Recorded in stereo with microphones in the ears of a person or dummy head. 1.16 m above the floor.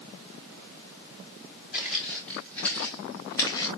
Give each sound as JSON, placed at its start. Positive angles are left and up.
{"t": 1.7, "sound": "footsteps", "side_deg": 0, "distance_m": 5.0}